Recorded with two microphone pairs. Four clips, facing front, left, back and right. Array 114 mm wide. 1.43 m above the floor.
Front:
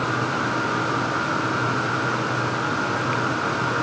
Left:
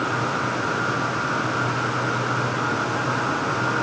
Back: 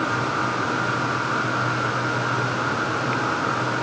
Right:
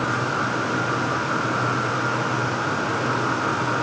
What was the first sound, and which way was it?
Only background noise.